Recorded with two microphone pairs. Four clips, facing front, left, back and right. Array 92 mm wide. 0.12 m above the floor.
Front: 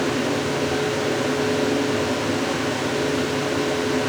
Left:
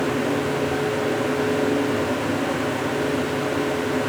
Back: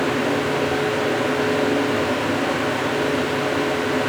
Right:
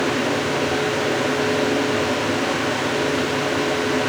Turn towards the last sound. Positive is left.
No sound to turn to.